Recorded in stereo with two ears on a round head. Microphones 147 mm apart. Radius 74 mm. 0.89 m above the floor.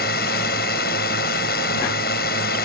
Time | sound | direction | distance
0.0 | a drone | 60° left (ahead or behind) | ?